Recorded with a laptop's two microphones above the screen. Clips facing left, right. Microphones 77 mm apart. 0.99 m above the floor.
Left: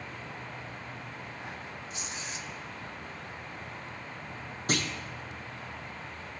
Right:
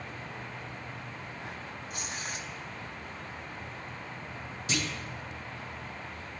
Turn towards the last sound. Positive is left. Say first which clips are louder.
# left 2 dB
turn(degrees=50)  # may be behind; listen again after turning